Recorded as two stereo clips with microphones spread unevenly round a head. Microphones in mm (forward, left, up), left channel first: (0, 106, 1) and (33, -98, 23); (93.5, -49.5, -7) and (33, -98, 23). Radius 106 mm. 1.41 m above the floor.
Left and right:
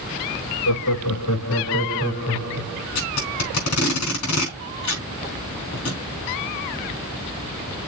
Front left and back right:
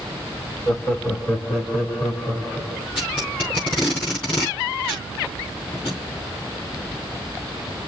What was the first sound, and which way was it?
Laughter, 125° left.